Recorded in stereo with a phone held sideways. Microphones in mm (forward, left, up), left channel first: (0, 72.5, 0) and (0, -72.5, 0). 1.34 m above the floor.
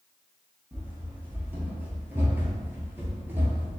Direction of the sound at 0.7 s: 10° right (ahead or behind).